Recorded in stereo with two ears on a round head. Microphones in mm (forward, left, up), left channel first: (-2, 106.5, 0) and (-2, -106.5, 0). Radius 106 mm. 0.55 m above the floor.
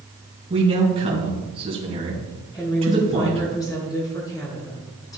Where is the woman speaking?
15° left (ahead or behind), 5 m.